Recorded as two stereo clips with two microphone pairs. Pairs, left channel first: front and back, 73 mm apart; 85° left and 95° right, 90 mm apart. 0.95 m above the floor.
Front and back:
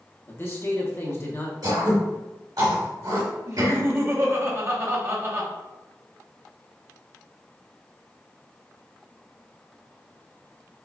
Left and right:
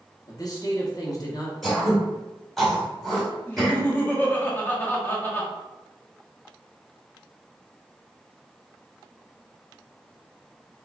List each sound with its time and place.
0.3 s a man speaking: 45° left, 1.0 m
1.6 s throat clearing: 170° left, 1.7 m
3.5 s laughter: 145° left, 1.0 m